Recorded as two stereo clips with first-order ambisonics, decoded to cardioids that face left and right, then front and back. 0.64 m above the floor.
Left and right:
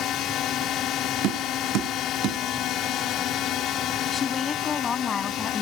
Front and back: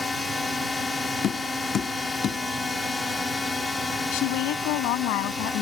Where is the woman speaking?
20° left.